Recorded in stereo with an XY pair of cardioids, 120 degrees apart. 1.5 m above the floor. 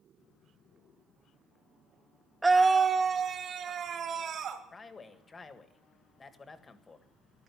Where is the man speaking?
25° left, 1.6 m.